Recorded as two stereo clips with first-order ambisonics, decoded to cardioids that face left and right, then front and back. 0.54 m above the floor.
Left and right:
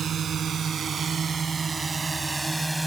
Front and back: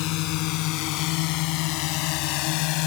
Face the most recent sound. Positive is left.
turn(degrees=0)